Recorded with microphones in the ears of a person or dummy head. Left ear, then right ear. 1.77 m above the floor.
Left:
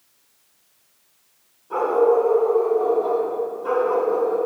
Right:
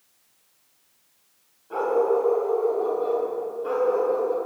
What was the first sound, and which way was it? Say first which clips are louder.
A dog barking: left 4 dB; 15° right (ahead or behind).